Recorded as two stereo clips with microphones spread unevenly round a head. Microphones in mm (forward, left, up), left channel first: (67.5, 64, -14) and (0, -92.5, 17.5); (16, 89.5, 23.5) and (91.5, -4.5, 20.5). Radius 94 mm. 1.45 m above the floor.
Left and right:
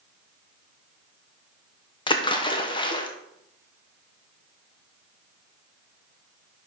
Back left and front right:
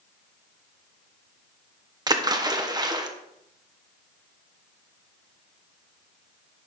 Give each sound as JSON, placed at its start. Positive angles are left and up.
{"t": 2.1, "sound": "a splash", "azimuth_deg": 5, "distance_m": 1.1}